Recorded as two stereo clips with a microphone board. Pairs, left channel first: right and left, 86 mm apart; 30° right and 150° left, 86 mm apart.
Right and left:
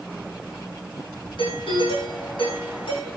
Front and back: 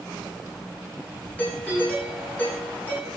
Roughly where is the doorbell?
Right.